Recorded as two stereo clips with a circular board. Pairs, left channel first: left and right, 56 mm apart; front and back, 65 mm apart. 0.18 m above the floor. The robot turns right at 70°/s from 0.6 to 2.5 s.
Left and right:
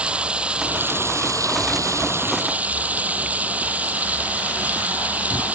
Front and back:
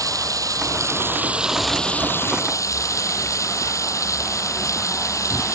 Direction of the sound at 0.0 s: 160° right.